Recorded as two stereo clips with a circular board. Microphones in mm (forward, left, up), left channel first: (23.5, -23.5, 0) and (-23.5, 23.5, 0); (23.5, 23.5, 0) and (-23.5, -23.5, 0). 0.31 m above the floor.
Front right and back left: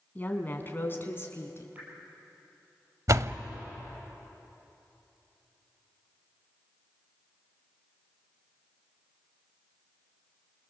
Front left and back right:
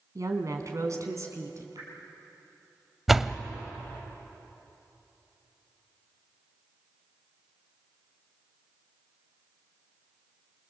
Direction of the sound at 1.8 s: 160° right.